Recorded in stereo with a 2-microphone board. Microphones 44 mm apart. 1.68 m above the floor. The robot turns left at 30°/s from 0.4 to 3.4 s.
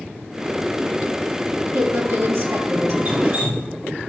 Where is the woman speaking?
85° right, 2.5 m; by 3.0 s 120° right, 2.5 m.